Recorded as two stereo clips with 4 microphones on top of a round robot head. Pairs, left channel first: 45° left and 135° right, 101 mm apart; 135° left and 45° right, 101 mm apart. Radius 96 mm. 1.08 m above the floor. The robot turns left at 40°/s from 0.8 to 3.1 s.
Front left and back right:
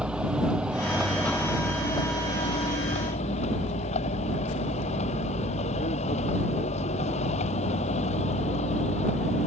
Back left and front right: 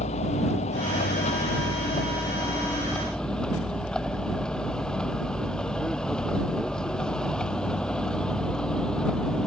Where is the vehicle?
145° left; by 9.5 s 55° left.